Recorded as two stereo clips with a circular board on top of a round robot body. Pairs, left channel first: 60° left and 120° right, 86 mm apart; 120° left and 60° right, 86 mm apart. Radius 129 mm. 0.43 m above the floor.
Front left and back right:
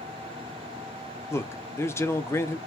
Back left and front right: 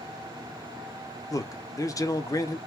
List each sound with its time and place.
1.3 s a man speaking: 100° left, 0.8 m